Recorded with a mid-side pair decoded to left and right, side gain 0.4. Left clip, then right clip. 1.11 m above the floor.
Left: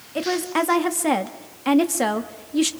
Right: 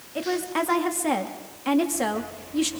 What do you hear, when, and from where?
0.1 s a woman speaking: 35° left, 2 m